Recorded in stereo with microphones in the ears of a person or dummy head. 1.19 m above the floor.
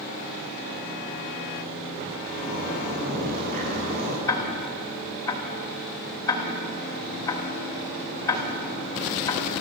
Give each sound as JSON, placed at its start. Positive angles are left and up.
{"t": 2.3, "sound": "a zipper", "side_deg": -60, "distance_m": 8.0}
{"t": 4.3, "sound": "ticking", "side_deg": 15, "distance_m": 3.0}